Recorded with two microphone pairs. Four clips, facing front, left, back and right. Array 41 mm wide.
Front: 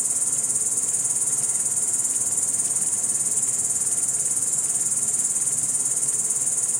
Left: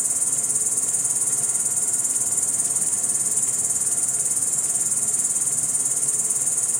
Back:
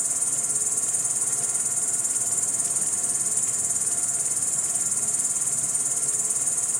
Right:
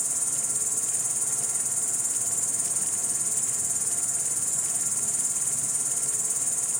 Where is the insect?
160° left, 1.5 m.